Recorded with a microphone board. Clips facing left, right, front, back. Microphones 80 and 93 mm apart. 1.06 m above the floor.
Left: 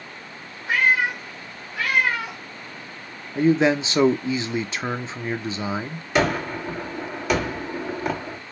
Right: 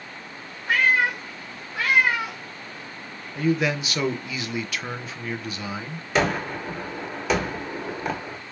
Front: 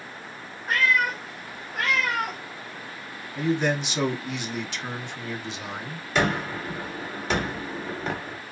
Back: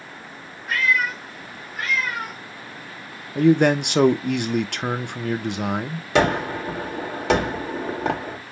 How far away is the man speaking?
About 0.6 m.